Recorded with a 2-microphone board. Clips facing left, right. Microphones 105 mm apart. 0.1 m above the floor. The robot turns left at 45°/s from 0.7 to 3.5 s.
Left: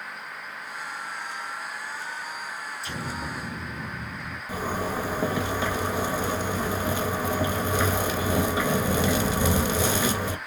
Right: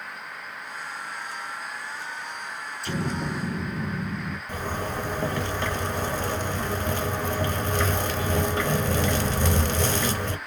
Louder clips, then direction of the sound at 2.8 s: Right 7 dB; 65° right.